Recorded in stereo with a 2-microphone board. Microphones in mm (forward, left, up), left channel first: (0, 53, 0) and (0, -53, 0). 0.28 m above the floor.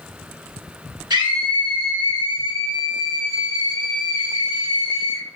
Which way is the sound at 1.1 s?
35° right (ahead or behind).